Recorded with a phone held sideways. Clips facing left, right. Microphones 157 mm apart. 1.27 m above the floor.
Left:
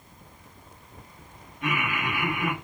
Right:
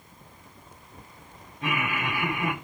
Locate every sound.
1.6 s laughter: 30° right (ahead or behind), 1.3 m